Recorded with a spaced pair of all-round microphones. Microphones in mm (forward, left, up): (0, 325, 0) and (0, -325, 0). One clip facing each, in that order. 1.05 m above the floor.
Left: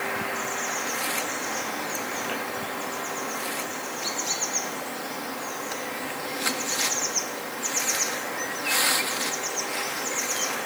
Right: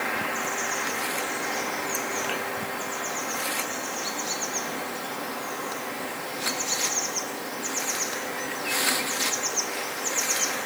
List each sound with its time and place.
Only background noise.